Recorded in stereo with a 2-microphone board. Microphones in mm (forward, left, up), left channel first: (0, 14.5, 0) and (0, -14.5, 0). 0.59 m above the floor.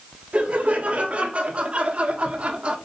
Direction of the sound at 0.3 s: 45° right (ahead or behind).